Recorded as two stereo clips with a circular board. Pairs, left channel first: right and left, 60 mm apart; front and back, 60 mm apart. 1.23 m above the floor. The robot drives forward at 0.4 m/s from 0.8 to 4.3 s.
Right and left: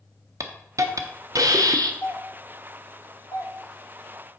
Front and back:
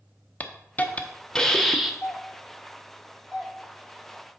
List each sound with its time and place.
0.4 s a hiss: 65° left, 0.8 m; by 1.9 s 95° left, 0.7 m
2.0 s a doorbell: 60° right, 1.2 m; by 3.5 s 95° right, 1.1 m